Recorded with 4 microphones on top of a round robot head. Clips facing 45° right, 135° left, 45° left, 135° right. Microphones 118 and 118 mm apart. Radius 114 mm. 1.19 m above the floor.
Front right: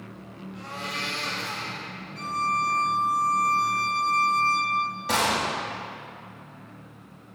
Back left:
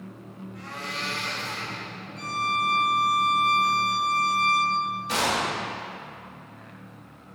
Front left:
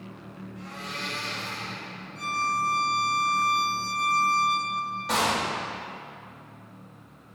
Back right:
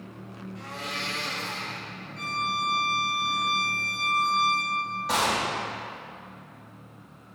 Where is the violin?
15° right, 4 m.